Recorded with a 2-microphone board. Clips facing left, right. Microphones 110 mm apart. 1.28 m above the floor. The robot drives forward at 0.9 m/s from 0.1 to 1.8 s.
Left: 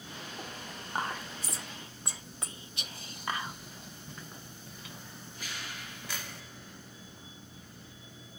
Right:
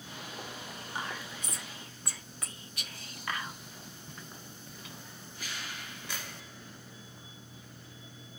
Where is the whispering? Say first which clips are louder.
Left 5 dB; 50° left (ahead or behind), 0.7 m; by 3.6 s 25° left (ahead or behind), 1.2 m.